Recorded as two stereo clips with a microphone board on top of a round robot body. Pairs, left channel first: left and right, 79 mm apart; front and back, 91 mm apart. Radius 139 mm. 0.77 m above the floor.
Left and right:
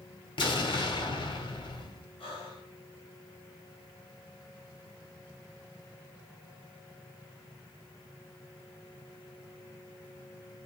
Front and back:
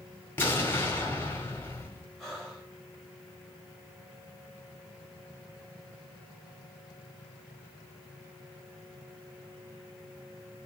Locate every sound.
0.4 s an explosion: 70° left, 2 m
2.2 s breathing: 90° left, 3 m